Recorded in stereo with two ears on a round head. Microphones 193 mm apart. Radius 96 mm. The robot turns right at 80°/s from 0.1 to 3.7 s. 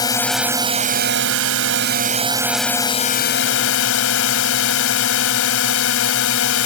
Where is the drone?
160° left; by 6.7 s 90° left.